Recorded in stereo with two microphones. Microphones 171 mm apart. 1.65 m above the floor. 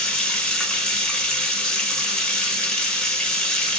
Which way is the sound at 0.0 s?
5° left (ahead or behind).